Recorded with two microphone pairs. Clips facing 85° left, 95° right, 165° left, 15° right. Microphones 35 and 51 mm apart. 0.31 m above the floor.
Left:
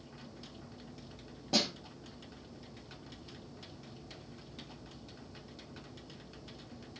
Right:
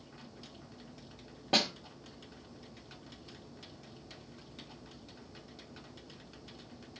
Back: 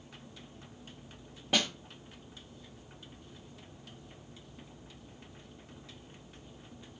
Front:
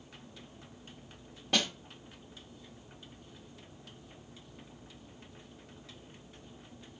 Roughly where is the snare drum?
Behind right.